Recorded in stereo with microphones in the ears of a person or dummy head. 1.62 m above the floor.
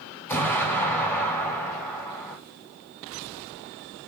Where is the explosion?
10° left (ahead or behind), 2 m.